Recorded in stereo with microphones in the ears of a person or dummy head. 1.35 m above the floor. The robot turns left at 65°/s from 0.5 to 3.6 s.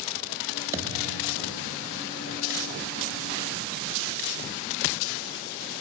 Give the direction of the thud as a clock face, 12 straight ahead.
1 o'clock.